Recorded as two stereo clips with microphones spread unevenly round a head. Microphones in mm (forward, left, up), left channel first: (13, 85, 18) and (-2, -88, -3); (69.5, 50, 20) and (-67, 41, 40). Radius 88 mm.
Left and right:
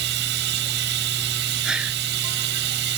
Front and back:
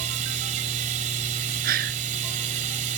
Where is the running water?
125° right.